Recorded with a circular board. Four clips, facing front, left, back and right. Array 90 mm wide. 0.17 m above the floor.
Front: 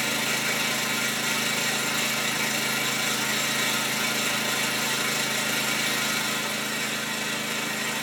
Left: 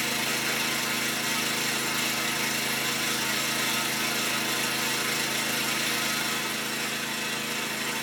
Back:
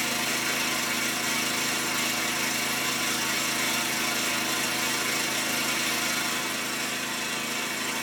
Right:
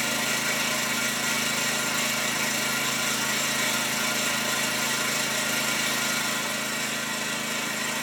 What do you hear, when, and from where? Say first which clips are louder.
0.0 s an engine running: right 2 dB, front 1 dB; 20° right, 3.5 m